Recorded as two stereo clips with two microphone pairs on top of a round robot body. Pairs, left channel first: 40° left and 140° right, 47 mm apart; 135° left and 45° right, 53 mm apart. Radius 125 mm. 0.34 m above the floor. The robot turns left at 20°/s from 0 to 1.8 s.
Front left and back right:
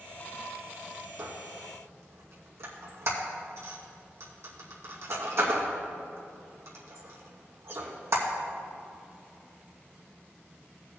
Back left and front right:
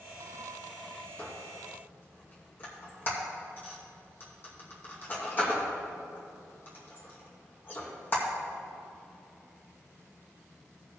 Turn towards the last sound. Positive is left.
turn(degrees=-170)